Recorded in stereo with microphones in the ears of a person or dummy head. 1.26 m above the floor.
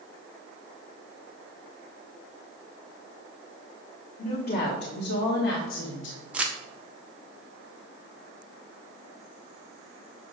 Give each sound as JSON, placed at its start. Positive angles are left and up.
{"t": 4.2, "sound": "a woman speaking", "side_deg": 45, "distance_m": 1.5}
{"t": 6.3, "sound": "crumpling", "side_deg": -10, "distance_m": 0.7}